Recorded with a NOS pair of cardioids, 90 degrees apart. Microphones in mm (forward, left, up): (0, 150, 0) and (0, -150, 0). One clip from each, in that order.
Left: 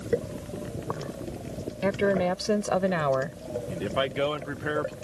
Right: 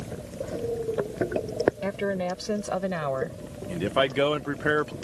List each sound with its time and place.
1.8 s a woman speaking: 25° left; by 3.4 s 30° left
3.7 s a man speaking: 25° right